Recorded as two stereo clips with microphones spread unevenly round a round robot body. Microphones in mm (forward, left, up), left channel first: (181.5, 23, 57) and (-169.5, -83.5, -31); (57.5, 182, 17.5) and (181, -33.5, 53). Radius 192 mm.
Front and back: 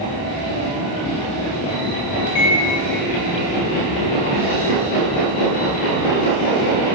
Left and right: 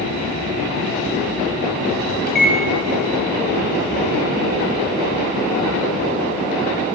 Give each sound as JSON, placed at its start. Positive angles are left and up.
{"t": 2.3, "sound": "a microwave", "azimuth_deg": 70, "distance_m": 1.3}